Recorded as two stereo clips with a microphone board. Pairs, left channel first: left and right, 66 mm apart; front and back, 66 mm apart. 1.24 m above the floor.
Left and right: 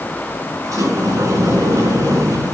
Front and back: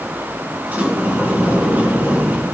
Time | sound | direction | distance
0.6 | a sliding door | 120° right | 3.5 m